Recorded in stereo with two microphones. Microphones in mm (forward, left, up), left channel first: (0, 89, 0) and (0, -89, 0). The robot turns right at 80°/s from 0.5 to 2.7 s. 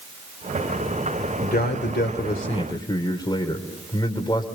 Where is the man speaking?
50° left, 2.0 m; by 4.5 s 155° left, 2.0 m.